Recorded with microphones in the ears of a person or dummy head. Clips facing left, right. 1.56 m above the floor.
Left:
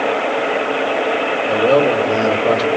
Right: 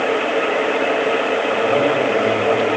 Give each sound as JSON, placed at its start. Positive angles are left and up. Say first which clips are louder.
{"t": 1.5, "sound": "a man speaking", "louder": "left 5 dB", "side_deg": 75, "distance_m": 3.0}